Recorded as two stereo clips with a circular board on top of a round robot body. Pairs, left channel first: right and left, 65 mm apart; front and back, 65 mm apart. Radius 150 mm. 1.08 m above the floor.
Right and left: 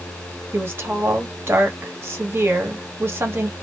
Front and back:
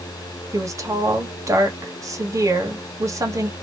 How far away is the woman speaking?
About 1.5 m.